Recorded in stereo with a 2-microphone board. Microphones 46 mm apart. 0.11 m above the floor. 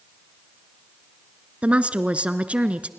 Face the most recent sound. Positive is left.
turn(degrees=-30)  # may be behind; listen again after turning